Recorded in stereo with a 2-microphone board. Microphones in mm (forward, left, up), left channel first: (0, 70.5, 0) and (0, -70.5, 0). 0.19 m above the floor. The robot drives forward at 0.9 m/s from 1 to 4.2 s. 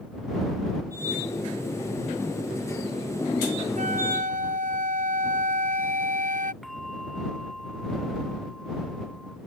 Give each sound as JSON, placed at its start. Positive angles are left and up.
{"t": 3.8, "sound": "a flute", "side_deg": -65}
{"t": 6.6, "sound": "a bell", "side_deg": 0}